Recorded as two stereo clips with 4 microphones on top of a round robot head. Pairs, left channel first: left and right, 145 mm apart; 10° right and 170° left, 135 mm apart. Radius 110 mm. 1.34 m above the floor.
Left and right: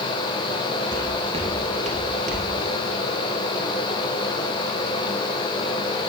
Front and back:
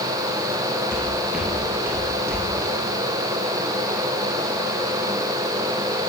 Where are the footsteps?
85° right, 1.4 m; by 2.5 s 110° right, 2.5 m.